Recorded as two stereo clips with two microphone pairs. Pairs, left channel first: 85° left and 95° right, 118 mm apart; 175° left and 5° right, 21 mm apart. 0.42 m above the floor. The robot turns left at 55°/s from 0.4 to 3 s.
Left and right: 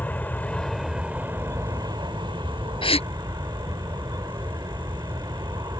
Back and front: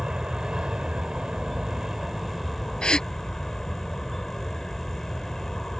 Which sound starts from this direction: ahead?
An aircraft, at 0.0 s.